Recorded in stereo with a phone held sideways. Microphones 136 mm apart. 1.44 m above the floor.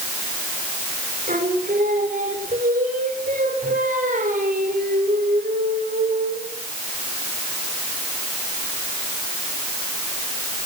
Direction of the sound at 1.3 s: 70° right (ahead or behind).